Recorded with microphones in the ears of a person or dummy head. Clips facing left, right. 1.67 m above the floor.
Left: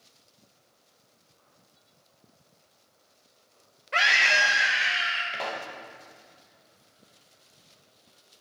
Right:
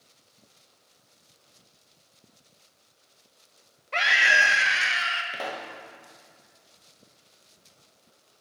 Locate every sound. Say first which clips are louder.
3.9 s a scream: right 1 dB; 5° left (ahead or behind), 0.8 m; by 5.2 s 75° right (ahead or behind), 1.2 m
5.3 s a pop: left 1 dB; 25° right (ahead or behind), 0.7 m